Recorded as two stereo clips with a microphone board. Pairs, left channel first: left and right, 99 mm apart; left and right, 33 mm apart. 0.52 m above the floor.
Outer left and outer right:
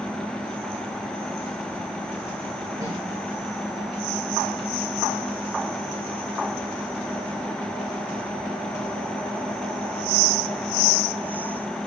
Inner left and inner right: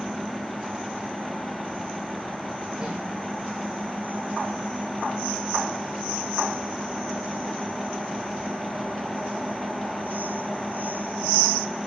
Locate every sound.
2.8 s a snare drum: 30° right (ahead or behind), 7.5 m